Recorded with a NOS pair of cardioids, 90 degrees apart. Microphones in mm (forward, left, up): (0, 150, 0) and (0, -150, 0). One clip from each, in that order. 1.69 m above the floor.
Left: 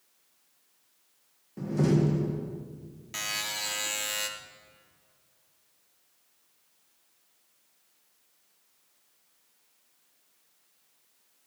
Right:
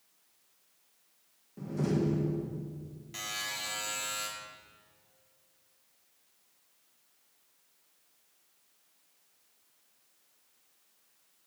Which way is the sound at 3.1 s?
45° left.